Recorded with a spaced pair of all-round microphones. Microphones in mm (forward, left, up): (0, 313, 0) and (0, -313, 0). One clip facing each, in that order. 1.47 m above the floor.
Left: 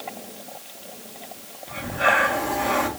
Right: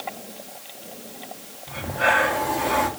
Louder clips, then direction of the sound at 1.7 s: Even; 65° right (ahead or behind).